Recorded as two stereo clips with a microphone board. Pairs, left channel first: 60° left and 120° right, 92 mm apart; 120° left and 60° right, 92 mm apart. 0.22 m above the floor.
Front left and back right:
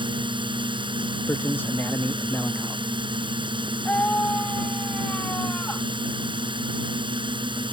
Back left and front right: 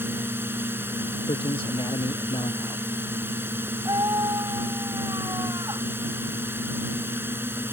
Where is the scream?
15° right.